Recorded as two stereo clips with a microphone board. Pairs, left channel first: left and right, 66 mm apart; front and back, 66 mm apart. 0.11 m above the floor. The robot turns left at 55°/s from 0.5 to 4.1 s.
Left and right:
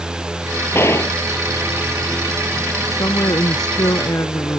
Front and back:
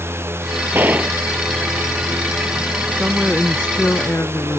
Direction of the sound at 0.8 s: 135° left.